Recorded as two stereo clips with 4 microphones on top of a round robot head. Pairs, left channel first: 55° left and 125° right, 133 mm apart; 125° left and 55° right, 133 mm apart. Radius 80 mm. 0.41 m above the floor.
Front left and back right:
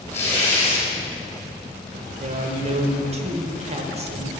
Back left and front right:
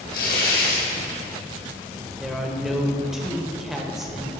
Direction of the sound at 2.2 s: 145° right.